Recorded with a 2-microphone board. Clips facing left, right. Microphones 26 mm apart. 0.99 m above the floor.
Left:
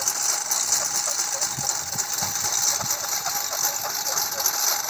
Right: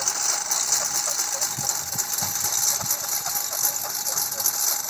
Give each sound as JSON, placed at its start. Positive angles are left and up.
{"t": 0.0, "sound": "a lawn mower", "side_deg": 0}